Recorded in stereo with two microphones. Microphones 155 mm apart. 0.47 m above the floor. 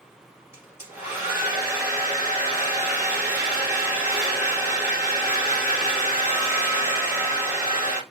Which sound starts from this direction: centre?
A hair dryer, at 0.5 s.